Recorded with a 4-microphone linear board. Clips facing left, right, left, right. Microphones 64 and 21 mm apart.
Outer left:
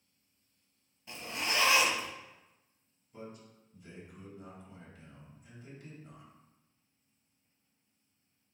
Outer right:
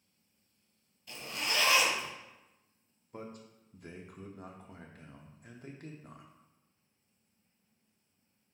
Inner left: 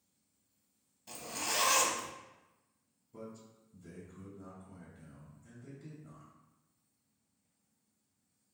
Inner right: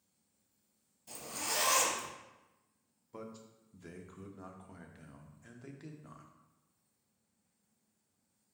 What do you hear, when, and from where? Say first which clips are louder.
1.1 s a zipper: outer left 1 dB, inner left 2 dB; 25° left (ahead or behind), 1.1 m
3.1 s a man speaking: outer right 2 dB, inner right 1 dB; 60° right (ahead or behind), 0.7 m